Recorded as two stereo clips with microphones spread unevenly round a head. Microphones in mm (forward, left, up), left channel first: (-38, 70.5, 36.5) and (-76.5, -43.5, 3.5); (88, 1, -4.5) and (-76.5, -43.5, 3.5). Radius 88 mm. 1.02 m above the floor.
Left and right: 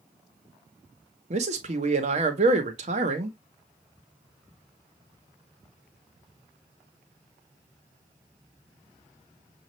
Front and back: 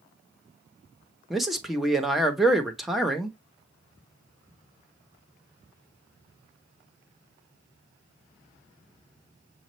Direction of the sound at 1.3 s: 75° right.